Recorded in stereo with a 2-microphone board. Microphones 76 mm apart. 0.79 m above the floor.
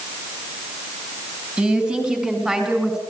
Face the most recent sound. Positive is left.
turn(degrees=-5)  # may be behind; listen again after turning